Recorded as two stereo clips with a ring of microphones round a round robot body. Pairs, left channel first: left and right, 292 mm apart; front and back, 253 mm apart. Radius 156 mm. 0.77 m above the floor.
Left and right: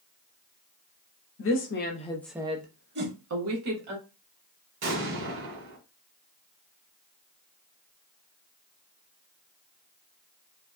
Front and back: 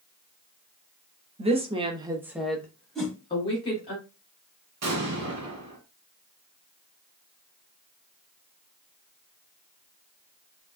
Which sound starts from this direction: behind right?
An explosion, at 4.8 s.